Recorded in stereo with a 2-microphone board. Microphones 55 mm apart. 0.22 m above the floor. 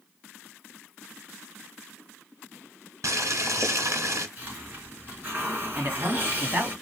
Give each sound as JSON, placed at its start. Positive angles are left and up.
{"t": 3.0, "sound": "boiling", "side_deg": -60, "distance_m": 1.7}
{"t": 4.4, "sound": "a hiss", "side_deg": -35, "distance_m": 2.5}
{"t": 5.8, "sound": "a man speaking", "side_deg": -35, "distance_m": 1.4}